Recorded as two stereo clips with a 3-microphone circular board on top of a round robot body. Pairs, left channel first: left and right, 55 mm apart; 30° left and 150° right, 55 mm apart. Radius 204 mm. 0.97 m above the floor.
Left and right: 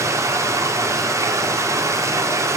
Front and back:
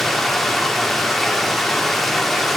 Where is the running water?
55° right, 1.9 m.